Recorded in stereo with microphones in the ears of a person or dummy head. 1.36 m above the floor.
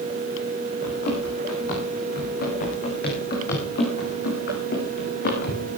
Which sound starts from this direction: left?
Running footsteps, at 0.8 s.